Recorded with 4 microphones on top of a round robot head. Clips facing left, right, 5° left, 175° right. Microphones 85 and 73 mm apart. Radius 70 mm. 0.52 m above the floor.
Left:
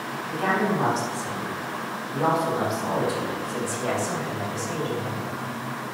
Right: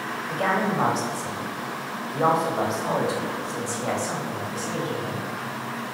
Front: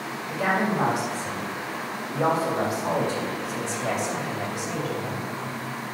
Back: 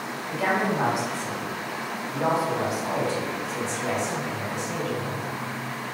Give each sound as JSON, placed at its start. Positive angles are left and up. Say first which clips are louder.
{"t": 0.3, "sound": "a woman speaking", "louder": "even, even", "azimuth_deg": -65, "distance_m": 3.5}